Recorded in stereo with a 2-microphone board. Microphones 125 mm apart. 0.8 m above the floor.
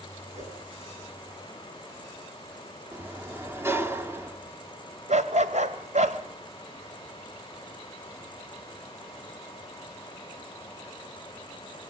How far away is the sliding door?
About 1.7 m.